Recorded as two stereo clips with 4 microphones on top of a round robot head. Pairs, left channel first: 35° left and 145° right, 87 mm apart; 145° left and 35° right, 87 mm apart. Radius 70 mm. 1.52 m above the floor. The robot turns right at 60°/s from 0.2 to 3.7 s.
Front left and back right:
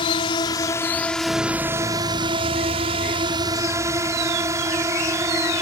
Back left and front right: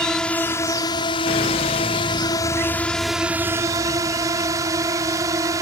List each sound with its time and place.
0.0 s a drone: 60° left; by 5.6 s 90° right